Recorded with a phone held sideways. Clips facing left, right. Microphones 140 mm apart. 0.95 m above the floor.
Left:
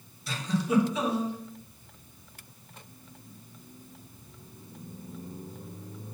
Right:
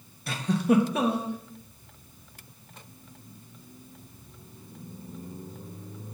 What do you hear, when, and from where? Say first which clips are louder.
0.3 s a giggle: right 5 dB; 55° right (ahead or behind), 1.2 m